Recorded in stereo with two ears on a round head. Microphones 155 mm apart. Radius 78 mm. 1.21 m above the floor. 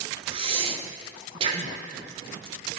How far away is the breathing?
About 0.9 m.